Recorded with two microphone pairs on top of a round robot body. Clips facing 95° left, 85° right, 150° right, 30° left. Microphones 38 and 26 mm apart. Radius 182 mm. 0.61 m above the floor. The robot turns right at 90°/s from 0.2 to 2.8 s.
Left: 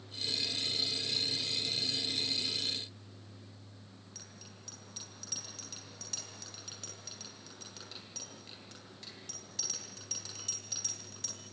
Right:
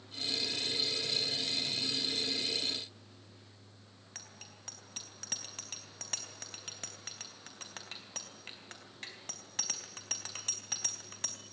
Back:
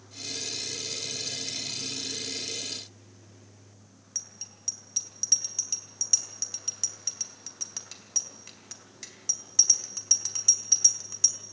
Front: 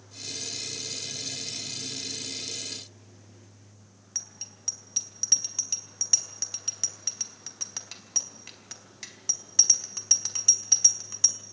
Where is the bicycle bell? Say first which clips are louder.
Right 4 dB, front 1 dB; 45° right, 4 m.